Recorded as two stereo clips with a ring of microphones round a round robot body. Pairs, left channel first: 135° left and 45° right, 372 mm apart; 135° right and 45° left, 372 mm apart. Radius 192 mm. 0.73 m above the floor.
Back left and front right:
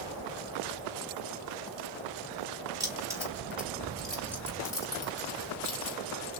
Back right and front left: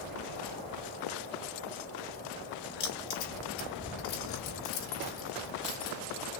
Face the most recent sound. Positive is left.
turn(degrees=-155)